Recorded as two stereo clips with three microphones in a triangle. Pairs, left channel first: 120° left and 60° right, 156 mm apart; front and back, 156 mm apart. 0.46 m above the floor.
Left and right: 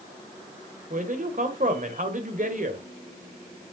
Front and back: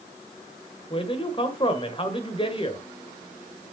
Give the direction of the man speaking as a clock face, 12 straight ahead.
2 o'clock.